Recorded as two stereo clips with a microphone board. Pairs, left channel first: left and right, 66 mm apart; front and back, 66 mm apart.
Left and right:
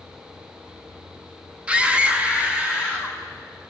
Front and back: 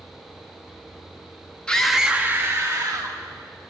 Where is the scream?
50° right, 1.1 m; by 3.2 s 160° right, 1.9 m.